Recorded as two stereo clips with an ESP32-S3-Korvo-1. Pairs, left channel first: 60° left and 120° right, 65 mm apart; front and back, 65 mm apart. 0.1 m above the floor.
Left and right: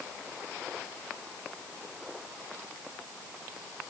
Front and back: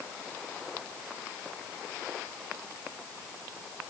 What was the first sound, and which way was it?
Only background noise.